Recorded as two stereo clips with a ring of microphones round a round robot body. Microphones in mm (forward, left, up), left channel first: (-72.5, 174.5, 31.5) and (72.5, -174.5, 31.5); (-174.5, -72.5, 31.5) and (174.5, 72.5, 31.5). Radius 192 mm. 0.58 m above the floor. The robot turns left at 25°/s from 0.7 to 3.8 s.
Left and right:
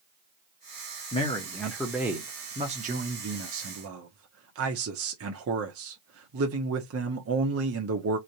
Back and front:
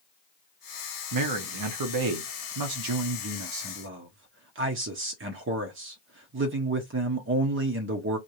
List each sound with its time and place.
1.1 s a man speaking: 40° left, 0.9 m; by 8.2 s 25° right, 0.9 m